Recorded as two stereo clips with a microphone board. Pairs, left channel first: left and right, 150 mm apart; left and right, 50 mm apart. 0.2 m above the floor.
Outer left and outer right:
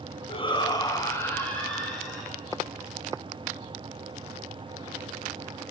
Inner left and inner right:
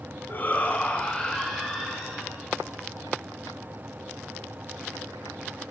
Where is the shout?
40° left (ahead or behind), 1.9 m; by 2.4 s centre (ahead or behind), 3 m.